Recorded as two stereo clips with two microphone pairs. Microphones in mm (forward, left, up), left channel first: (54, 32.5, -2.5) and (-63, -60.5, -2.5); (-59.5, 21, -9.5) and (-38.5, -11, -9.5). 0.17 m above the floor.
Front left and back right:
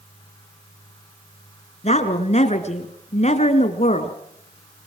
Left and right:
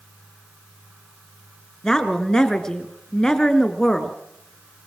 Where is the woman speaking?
55° left, 2.0 m.